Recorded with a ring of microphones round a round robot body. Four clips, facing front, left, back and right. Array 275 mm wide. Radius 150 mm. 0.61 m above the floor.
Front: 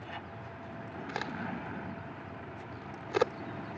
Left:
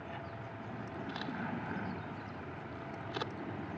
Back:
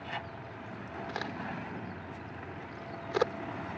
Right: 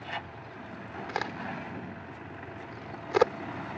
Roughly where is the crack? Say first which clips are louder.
Right 6 dB, front 1 dB; right.